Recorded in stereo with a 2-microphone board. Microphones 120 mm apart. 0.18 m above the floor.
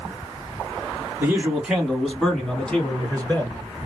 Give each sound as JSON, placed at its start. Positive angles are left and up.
{"t": 1.2, "sound": "a man speaking", "side_deg": -15, "distance_m": 1.3}